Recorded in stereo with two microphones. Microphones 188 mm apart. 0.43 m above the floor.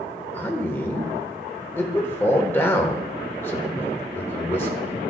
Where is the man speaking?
10° left (ahead or behind), 1.1 m.